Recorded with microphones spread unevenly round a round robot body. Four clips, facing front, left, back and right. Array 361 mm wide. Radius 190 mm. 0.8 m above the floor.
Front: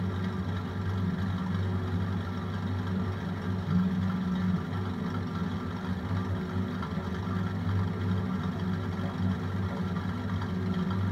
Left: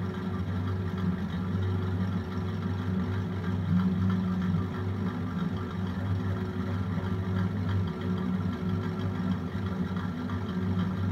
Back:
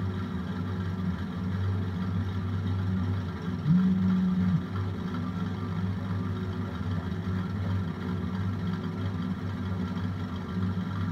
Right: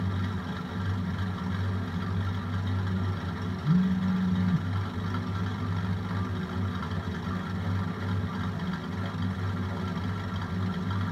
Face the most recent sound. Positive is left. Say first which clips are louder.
# right 3 dB, back 5 dB
turn(degrees=-150)